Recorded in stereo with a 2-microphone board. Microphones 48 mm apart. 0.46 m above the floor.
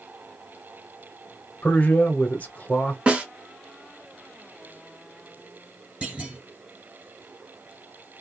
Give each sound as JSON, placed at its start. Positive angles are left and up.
{"t": 1.6, "sound": "a man speaking", "side_deg": 35, "distance_m": 1.1}
{"t": 3.1, "sound": "a snare drum", "side_deg": -25, "distance_m": 1.0}
{"t": 6.0, "sound": "a clunk", "side_deg": -25, "distance_m": 1.1}